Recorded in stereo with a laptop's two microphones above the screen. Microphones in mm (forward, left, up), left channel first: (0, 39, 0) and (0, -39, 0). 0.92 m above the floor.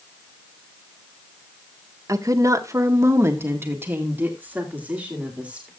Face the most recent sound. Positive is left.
turn(degrees=-15)  # may be behind; listen again after turning